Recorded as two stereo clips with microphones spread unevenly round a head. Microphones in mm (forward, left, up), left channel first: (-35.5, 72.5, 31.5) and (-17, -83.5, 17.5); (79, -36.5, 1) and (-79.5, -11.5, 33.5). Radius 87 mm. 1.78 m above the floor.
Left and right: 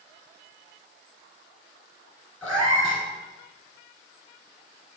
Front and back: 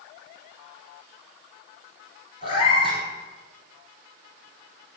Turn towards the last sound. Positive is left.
turn(degrees=25)